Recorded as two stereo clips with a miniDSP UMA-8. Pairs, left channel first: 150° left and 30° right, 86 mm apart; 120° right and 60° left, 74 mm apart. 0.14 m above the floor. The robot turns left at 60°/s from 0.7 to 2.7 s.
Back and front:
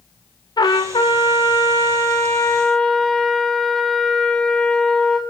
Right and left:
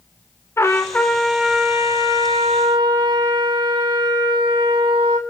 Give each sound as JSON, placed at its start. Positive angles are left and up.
{"t": 0.6, "sound": "a trumpet", "azimuth_deg": -175, "distance_m": 2.5}